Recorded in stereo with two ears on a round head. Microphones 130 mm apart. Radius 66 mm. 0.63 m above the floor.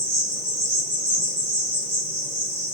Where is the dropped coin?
No dropped coin in this recording.